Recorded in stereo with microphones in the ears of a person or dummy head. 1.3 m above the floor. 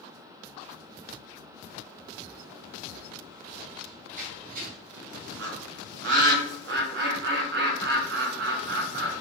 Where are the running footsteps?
45° right (ahead or behind), 3 m; by 5.3 s 60° right (ahead or behind), 2.5 m.